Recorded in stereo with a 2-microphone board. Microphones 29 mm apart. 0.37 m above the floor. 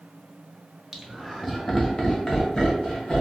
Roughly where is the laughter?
Centre.